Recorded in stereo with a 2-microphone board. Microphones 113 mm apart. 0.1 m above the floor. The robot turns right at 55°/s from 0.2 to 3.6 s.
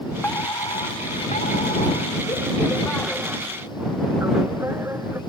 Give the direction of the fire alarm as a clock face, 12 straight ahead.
11 o'clock.